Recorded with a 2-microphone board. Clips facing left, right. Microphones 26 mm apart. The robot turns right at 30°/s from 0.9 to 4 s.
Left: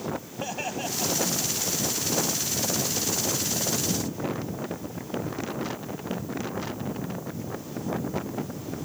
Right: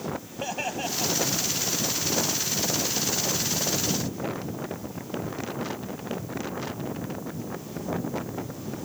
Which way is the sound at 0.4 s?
10° right (ahead or behind).